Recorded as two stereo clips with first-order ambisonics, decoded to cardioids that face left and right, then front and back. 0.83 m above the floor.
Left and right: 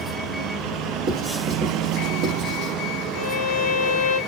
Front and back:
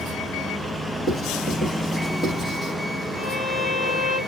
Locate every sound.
1.1 s writing: 70° right, 1.5 m
3.1 s a violin: 75° left, 0.7 m